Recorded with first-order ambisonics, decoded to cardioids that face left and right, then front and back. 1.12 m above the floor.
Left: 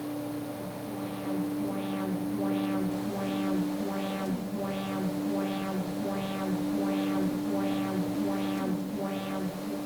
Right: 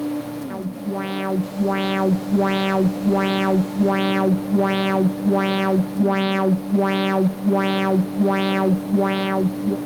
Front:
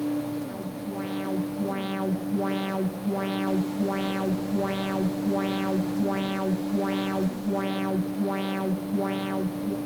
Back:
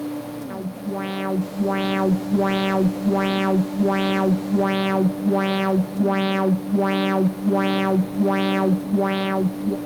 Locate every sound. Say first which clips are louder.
0.5 s an alarm: right 8 dB, back 4 dB; 120° right, 1.0 m